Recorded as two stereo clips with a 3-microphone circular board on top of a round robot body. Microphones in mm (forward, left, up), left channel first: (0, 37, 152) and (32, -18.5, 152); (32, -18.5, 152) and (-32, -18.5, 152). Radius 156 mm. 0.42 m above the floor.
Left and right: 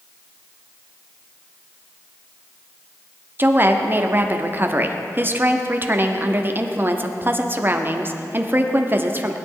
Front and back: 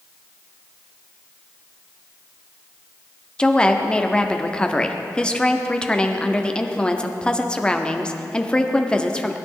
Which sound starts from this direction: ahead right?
A woman speaking, at 3.4 s.